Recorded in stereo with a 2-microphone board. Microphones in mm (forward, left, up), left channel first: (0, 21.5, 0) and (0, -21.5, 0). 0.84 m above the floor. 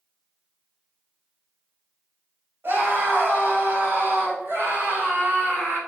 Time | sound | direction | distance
2.6 | a scream | 60° right (ahead or behind) | 2.5 m